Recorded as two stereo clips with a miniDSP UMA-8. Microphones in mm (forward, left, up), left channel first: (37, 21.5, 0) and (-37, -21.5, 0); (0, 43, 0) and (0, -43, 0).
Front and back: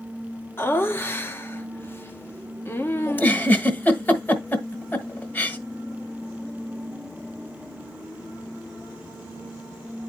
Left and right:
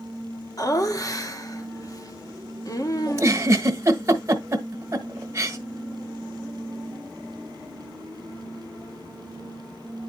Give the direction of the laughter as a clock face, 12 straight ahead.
9 o'clock.